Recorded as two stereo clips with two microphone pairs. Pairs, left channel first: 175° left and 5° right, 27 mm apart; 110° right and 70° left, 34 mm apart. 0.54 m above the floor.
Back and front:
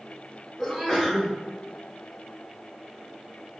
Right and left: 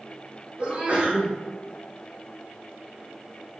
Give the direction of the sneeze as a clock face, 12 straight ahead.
9 o'clock.